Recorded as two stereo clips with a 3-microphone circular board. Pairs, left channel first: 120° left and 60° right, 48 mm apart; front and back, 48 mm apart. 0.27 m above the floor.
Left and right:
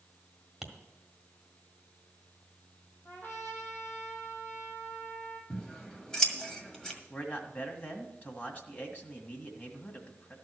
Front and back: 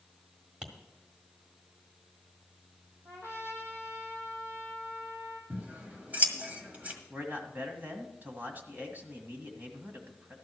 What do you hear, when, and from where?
0.6 s tapping: 140° right, 1.5 m
3.0 s a trumpet: 170° left, 3 m
5.5 s scissors: 175° right, 1.7 m
7.1 s a man speaking: 155° left, 1.7 m